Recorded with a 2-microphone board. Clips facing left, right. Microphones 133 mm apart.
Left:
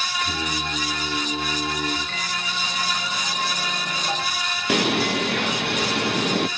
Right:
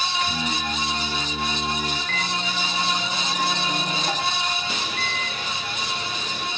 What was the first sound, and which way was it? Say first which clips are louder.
Singing: right 1 dB; 30° left (ahead or behind).